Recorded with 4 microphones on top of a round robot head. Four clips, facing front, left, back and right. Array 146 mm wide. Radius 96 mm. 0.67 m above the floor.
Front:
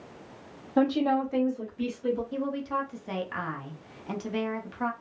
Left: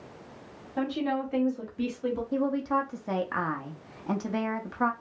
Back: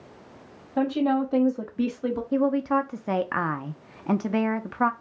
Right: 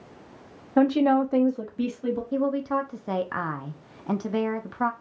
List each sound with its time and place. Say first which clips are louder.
0.8 s a woman speaking: right 9 dB, back 1 dB; 70° right, 0.8 m; by 2.2 s straight behind, 1.2 m
2.3 s a woman speaking: right 2 dB, back 8 dB; 170° right, 0.6 m